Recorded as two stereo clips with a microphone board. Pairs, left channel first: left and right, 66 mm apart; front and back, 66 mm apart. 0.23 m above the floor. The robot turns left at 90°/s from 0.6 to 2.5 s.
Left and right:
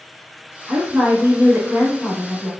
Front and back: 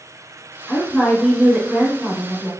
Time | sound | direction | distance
0.7 | a woman speaking | 30° right | 1.3 m